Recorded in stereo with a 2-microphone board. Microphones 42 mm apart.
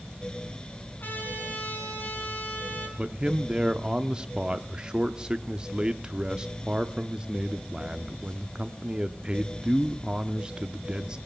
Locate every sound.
1.0 s a trumpet: 50° left (ahead or behind), 4 m
3.0 s a man speaking: 20° right (ahead or behind), 0.6 m